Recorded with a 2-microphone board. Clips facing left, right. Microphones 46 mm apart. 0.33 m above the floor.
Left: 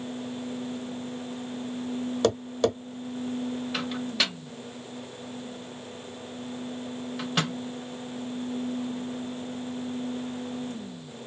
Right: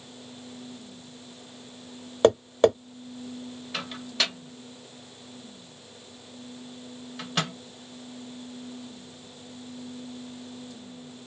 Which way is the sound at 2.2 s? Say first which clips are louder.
Right 6 dB; 35° right (ahead or behind).